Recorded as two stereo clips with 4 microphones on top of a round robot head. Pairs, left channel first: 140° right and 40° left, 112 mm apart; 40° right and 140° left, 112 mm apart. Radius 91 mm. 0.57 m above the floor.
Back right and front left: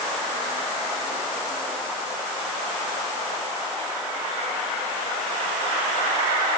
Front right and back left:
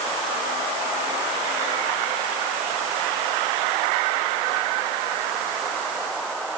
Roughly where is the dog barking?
I don't hear a dog barking.